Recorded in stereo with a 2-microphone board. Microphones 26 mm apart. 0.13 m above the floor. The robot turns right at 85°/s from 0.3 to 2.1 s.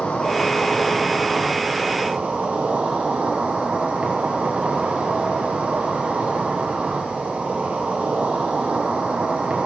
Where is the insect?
100° left, 4 m; by 9.7 s 110° right, 4 m.